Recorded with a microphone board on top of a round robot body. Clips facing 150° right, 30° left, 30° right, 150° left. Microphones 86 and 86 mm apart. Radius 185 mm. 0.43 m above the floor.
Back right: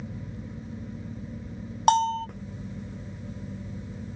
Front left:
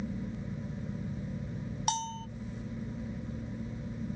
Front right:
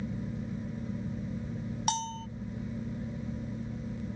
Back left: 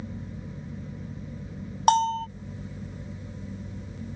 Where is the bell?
Straight behind.